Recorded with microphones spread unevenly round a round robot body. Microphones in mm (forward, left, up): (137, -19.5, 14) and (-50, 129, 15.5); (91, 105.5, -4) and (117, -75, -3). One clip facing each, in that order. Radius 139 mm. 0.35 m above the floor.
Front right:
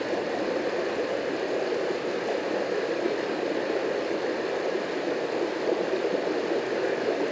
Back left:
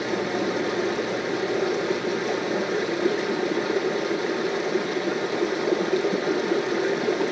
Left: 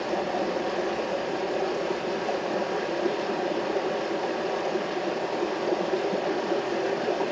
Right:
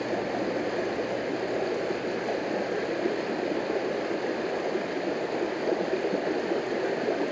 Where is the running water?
160° right, 1.1 m.